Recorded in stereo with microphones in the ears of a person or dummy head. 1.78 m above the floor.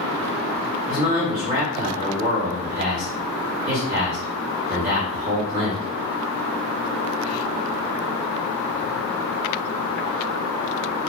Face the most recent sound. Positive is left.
turn(degrees=-30)  # may be behind; listen again after turning